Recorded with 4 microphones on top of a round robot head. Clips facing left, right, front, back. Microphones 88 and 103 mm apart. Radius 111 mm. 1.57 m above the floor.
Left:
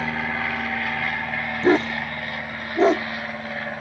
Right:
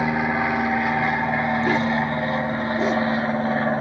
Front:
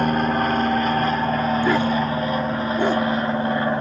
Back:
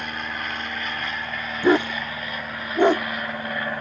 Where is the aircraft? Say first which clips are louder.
Right 5 dB, front 12 dB; 25° right; by 3.8 s 50° right.